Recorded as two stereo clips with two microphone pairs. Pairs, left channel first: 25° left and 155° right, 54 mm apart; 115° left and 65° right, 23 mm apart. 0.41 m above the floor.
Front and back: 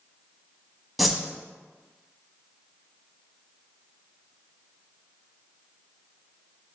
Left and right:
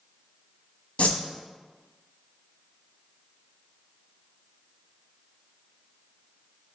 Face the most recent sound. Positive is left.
turn(degrees=115)